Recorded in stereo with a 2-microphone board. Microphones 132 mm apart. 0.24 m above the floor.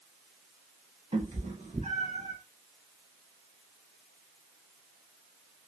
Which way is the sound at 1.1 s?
50° right (ahead or behind).